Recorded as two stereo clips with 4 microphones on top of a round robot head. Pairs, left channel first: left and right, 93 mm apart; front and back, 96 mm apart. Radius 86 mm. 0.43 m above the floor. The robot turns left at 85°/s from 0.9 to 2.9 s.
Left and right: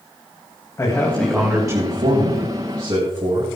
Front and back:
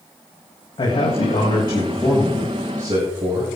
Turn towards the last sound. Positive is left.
turn(degrees=-140)